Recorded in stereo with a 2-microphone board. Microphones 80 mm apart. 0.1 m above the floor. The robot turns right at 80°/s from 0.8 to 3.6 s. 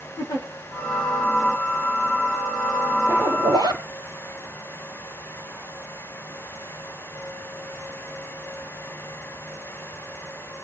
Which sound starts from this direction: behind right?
A zipper, at 3.1 s.